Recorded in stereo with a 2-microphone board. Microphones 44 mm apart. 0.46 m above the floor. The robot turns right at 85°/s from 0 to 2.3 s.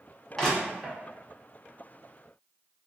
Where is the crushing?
10° left (ahead or behind), 0.9 m; by 1.0 s 10° right (ahead or behind), 0.9 m.